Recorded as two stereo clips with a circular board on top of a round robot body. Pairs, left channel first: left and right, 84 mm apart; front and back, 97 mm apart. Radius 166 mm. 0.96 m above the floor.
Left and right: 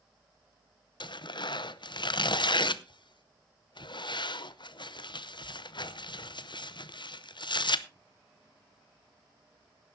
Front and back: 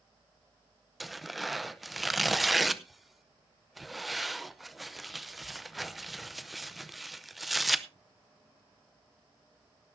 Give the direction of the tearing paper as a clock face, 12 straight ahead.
9 o'clock.